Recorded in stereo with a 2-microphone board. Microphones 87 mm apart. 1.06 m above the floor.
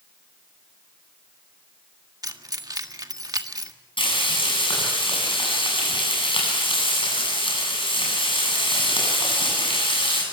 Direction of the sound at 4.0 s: 85° left.